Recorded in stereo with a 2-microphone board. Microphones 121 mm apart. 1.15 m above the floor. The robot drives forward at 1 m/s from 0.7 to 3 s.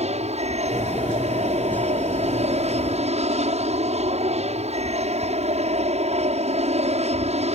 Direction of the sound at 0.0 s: 65° right (ahead or behind).